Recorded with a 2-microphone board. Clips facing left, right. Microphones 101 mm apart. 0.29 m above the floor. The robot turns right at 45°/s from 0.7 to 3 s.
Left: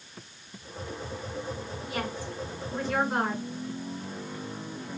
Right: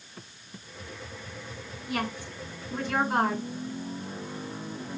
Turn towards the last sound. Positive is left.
turn(degrees=-75)